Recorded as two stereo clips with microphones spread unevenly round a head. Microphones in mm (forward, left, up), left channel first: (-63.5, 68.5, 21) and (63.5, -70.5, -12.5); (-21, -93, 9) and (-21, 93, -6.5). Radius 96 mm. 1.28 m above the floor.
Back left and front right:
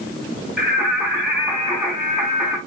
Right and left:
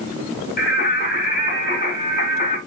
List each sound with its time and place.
0.6 s singing: 135° right, 6.5 m